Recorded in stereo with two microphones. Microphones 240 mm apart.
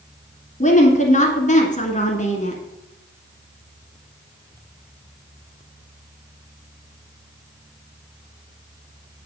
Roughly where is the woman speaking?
Left.